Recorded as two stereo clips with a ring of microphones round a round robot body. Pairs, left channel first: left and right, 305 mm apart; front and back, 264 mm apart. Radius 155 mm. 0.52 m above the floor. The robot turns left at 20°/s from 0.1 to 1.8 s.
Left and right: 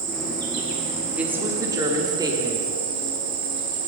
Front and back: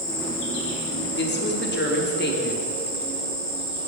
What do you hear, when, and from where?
0.0 s an insect: 45° right, 1.9 m; by 3.9 s 80° right, 1.9 m
1.2 s a woman speaking: 5° right, 1.1 m; by 2.7 s 20° right, 1.1 m